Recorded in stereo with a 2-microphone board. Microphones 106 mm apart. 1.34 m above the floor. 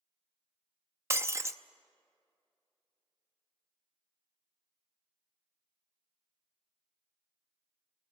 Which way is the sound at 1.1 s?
25° right (ahead or behind).